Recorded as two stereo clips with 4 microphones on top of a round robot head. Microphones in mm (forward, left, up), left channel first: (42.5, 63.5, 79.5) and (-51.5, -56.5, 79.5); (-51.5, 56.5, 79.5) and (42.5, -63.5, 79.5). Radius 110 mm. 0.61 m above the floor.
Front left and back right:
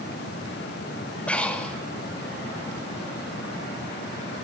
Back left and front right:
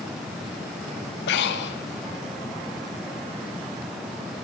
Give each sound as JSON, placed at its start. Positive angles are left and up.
{"t": 1.3, "sound": "breathing", "azimuth_deg": 135, "distance_m": 0.6}